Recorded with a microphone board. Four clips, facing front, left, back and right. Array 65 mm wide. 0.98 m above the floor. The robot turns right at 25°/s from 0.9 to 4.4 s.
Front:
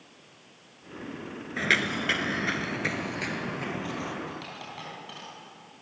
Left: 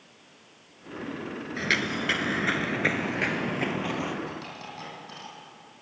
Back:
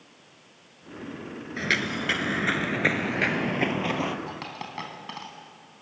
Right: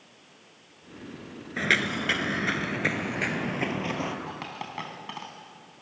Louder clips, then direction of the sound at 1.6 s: Right 2 dB, front 1 dB; 60° right.